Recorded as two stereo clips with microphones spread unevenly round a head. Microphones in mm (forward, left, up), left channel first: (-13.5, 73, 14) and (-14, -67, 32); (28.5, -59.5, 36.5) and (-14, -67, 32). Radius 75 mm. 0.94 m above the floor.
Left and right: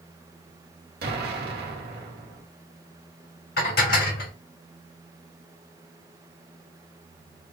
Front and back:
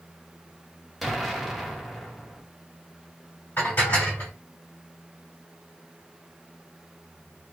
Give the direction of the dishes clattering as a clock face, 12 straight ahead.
9 o'clock.